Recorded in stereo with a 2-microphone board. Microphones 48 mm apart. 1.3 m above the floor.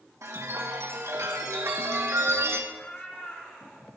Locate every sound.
0.2 s a chime: 80° right, 1.7 m
2.7 s a cat meowing: 25° left (ahead or behind), 3.5 m